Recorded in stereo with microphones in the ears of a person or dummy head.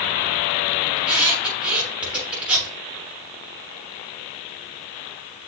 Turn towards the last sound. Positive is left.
turn(degrees=-10)  # may be behind; listen again after turning